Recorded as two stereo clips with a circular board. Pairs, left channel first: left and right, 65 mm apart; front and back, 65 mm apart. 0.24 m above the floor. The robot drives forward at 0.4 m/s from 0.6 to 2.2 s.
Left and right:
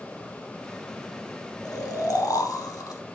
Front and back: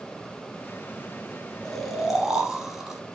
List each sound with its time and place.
1.6 s snoring: 80° left, 0.8 m; by 3.0 s 100° left, 0.8 m